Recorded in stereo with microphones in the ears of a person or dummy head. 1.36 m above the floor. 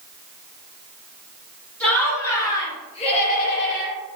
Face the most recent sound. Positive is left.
turn(degrees=70)  # may be behind; listen again after turning